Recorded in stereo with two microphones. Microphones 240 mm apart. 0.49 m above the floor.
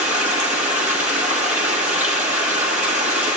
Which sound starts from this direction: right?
Running water, at 0.0 s.